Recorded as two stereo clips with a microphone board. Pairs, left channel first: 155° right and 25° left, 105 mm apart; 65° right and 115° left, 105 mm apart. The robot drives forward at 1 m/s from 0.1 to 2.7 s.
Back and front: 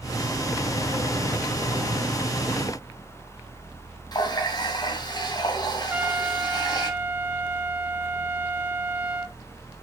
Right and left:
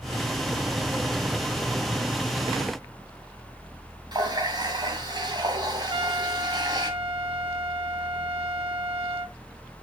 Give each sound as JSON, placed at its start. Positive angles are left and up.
{"t": 4.1, "sound": "a running tap", "azimuth_deg": 155, "distance_m": 2.5}
{"t": 5.9, "sound": "a trumpet", "azimuth_deg": 100, "distance_m": 1.4}